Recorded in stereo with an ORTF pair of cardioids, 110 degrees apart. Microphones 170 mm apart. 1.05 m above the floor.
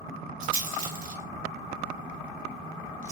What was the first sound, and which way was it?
A rattle, 55° right.